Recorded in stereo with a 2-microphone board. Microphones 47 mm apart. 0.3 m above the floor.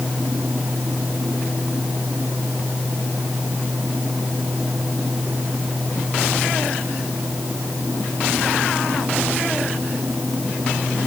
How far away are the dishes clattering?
I don't hear dishes clattering.